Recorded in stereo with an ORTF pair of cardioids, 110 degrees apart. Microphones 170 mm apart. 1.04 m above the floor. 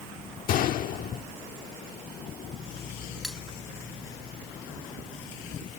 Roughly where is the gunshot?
Ahead left.